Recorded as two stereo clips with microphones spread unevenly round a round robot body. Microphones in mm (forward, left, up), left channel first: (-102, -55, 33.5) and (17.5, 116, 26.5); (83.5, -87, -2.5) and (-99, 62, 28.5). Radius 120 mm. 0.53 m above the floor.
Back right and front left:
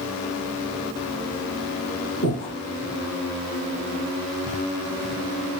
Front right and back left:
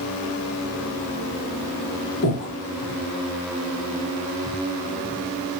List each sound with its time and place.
2.2 s breathing: 85° right, 1.4 m